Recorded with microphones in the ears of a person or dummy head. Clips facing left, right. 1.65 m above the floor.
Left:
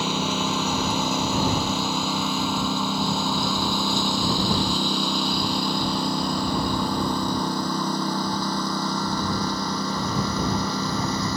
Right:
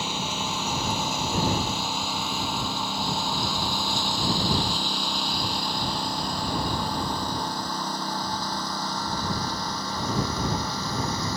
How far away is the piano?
No piano in this recording.